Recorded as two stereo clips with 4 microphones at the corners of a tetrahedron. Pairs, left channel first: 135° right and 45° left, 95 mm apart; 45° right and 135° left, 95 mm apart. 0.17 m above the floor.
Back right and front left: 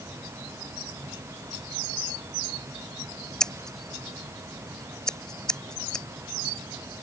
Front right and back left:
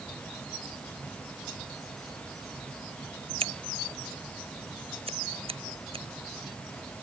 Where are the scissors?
140° left.